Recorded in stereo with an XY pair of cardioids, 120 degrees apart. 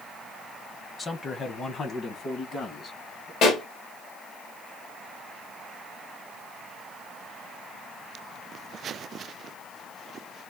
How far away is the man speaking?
About 0.7 m.